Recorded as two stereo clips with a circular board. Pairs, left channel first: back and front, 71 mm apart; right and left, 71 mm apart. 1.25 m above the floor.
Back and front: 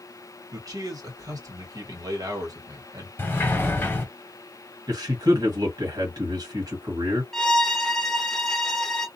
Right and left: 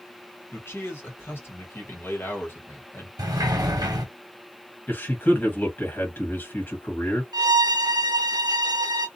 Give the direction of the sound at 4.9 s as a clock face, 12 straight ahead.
1 o'clock.